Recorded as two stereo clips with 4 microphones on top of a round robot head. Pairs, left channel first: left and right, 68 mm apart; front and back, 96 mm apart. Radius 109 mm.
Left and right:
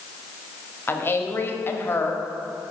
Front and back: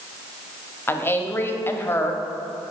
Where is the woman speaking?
55° left, 0.9 m.